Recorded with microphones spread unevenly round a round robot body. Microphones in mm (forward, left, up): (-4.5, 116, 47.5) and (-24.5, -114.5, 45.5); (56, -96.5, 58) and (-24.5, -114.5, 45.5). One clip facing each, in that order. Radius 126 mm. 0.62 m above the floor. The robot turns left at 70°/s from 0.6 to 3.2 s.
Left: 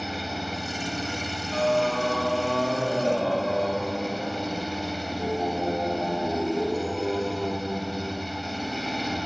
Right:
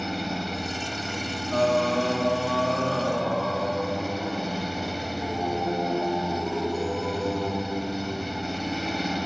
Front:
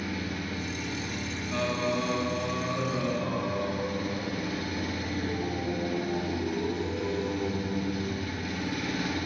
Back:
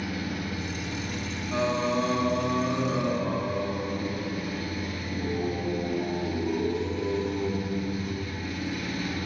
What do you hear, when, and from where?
0.0 s an engine running: 175° left, 3 m; by 9.3 s 10° right, 3 m
1.5 s singing: 105° right, 1.4 m; by 8.3 s 135° left, 1.4 m